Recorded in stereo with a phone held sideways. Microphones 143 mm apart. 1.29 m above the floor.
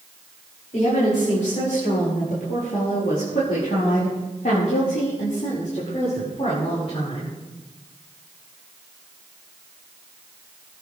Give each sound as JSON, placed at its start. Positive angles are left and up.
{"t": 0.7, "sound": "a woman speaking", "side_deg": 60, "distance_m": 6.0}